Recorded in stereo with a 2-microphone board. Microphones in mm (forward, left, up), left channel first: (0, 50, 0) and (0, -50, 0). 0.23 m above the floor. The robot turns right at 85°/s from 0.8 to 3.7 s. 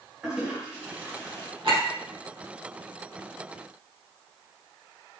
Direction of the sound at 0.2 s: 10° right (ahead or behind).